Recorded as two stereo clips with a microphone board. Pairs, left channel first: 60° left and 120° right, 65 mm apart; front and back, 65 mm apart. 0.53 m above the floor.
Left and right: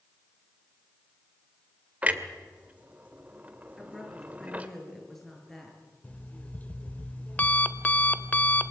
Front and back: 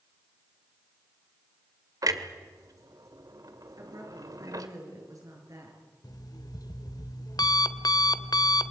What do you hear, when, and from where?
2.0 s a clunk: 175° left, 1.7 m
3.8 s a woman speaking: 145° left, 7.5 m
6.0 s an alarm clock: 10° right, 1.0 m